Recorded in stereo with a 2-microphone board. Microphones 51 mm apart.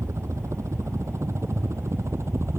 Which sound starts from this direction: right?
A helicopter, at 0.0 s.